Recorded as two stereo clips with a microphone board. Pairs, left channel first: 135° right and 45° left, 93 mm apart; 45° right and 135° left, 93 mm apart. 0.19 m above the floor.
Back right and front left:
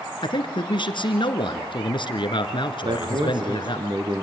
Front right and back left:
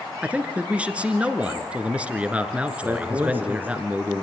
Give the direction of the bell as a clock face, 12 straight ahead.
I don't hear a bell.